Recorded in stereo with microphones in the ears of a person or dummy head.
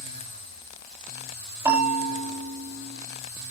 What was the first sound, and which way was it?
A bell, 20° right (ahead or behind).